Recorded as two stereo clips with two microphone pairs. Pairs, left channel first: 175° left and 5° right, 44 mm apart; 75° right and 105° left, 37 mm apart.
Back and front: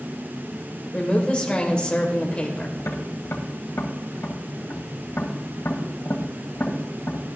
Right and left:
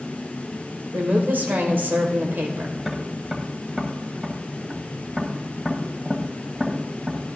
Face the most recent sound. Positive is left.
turn(degrees=180)